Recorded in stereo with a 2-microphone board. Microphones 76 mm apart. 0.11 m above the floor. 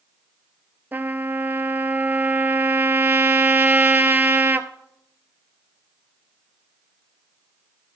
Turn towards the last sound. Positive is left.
turn(degrees=-25)  # may be behind; listen again after turning